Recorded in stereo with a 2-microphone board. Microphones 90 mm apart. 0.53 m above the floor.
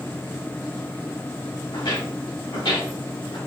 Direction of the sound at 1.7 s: 65° left (ahead or behind).